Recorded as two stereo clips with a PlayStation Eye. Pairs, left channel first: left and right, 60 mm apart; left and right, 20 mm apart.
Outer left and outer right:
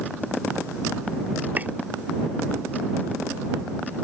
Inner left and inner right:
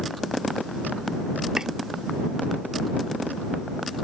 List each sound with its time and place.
1.6 s chopping: 30° right (ahead or behind)